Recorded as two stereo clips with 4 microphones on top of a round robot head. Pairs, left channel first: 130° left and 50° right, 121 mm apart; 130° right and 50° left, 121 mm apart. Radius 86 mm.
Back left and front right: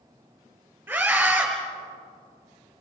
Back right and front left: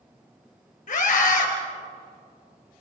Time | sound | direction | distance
0.9 | a scream | 125° right | 4.5 m